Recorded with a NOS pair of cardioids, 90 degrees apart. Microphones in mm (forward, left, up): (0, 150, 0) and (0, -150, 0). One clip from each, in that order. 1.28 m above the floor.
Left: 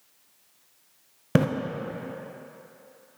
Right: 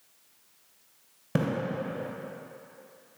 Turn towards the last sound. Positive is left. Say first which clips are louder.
# left 6 dB
turn(degrees=30)